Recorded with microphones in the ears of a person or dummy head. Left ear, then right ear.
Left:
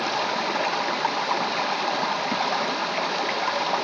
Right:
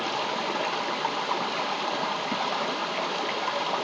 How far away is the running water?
About 0.9 m.